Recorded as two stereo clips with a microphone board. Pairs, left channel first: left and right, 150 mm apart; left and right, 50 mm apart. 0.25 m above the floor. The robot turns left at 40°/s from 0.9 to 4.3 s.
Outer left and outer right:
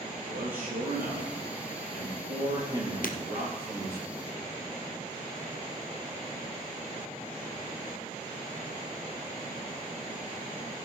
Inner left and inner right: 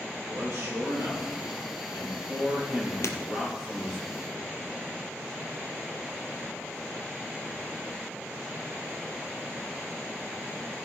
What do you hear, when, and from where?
0.1 s a man speaking: 75° right, 5 m; by 4.0 s 160° left, 5 m
3.0 s breaking glass: 70° left (ahead or behind), 1.5 m; by 3.2 s 65° left (ahead or behind), 1.5 m